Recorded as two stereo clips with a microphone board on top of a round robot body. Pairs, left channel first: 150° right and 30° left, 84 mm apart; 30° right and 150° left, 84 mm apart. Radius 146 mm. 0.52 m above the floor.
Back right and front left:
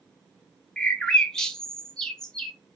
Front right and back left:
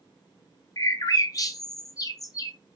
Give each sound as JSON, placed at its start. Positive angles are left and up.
{"t": 0.8, "sound": "a bird", "azimuth_deg": -70, "distance_m": 0.7}